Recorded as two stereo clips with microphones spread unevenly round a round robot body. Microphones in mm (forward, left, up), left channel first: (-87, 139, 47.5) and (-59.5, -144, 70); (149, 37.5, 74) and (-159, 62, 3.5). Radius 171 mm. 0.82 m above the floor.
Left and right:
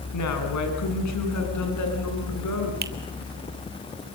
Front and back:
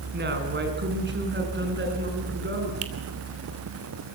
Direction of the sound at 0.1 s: 120° left.